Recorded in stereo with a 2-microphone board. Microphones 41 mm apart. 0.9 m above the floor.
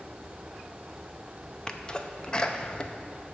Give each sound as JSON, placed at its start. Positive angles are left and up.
{"t": 1.7, "sound": "a sneeze", "side_deg": 25, "distance_m": 0.6}